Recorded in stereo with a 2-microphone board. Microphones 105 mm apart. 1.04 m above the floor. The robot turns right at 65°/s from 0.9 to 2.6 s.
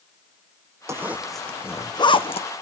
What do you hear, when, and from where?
0.9 s a zipper: 25° right (ahead or behind), 0.6 m; by 2.5 s 70° left (ahead or behind), 0.6 m